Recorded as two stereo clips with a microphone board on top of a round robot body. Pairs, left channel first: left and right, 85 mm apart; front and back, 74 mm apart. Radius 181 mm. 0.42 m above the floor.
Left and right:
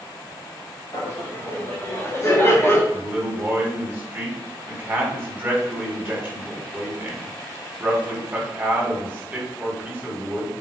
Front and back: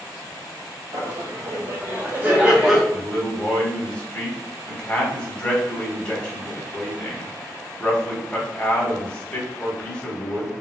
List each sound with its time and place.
0.9 s laughter: 140° left, 1.7 m; by 2.8 s 100° left, 1.2 m
2.9 s a man speaking: 55° right, 1.4 m